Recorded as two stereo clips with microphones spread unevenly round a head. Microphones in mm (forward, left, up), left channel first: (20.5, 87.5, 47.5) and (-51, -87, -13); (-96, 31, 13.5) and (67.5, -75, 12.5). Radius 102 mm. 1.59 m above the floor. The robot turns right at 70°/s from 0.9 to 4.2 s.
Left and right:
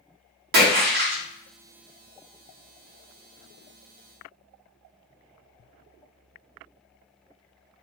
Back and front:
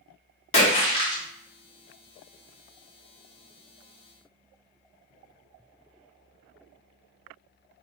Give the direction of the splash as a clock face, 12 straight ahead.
5 o'clock.